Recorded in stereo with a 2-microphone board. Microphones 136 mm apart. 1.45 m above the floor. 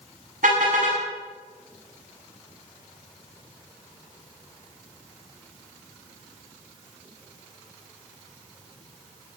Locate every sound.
0.4 s a car horn: 85° right, 8 m